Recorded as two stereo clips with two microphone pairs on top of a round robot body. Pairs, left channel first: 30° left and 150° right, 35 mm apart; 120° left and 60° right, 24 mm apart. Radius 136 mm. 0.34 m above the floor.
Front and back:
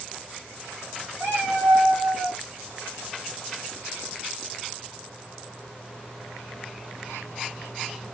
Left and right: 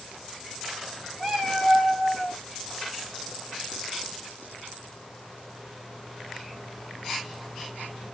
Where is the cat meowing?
145° right, 1.5 m; by 2.4 s 130° right, 3 m.